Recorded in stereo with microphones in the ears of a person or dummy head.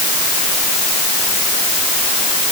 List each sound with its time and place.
Only background noise.